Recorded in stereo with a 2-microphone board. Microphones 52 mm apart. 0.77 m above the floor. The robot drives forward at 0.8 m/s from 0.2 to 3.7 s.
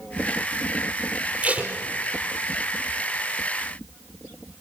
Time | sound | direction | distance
1.4 | tape being pulled | 25° right (ahead or behind) | 4 m